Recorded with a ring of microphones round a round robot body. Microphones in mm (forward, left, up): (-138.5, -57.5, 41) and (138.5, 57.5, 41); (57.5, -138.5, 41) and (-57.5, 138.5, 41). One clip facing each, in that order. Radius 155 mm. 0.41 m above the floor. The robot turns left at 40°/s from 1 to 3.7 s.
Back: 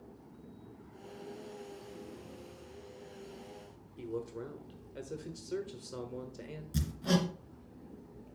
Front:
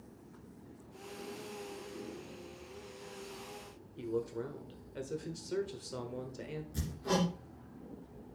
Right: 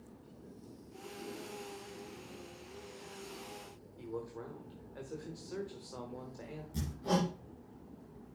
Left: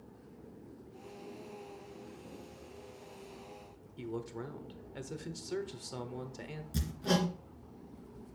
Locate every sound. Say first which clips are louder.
4.0 s a man speaking: front 3 dB, left 2 dB; 115° left, 1.2 m
6.7 s hammering: back 2 dB, left 2 dB; 170° left, 2.5 m